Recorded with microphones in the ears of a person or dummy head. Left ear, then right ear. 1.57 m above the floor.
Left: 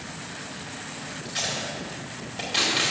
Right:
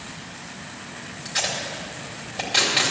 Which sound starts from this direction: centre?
Tape being pulled, at 1.2 s.